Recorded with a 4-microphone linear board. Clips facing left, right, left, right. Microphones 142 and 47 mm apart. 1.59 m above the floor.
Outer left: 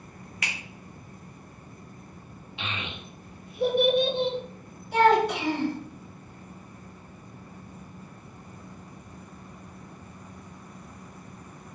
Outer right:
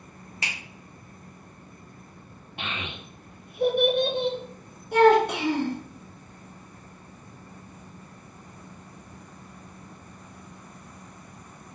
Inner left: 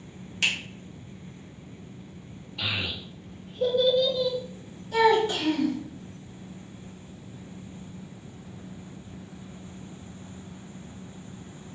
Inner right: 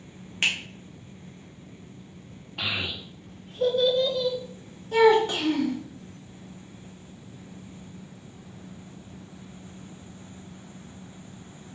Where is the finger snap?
30° right (ahead or behind), 1.0 m.